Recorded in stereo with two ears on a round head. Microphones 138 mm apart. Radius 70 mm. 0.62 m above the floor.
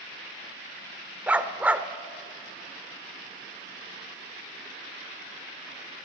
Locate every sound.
1.3 s a dog barking: 10° right (ahead or behind), 0.7 m